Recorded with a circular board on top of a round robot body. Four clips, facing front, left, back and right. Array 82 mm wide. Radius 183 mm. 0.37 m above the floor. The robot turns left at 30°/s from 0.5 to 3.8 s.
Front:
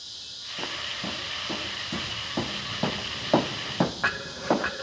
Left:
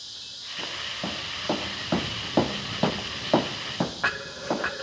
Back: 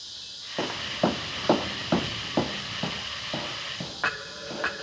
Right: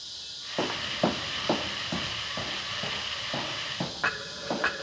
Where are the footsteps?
130° right, 1.2 m; by 4.7 s 5° left, 1.5 m.